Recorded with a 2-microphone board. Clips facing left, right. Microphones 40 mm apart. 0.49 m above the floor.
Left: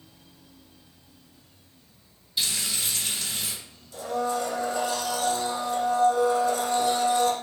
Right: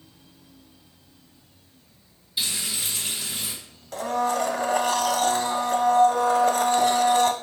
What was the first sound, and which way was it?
Frying, 10° right (ahead or behind).